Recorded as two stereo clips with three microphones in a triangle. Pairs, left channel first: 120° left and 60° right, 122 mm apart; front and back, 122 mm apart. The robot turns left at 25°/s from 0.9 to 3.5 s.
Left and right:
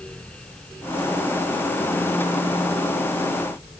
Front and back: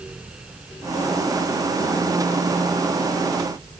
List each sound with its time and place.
Only background noise.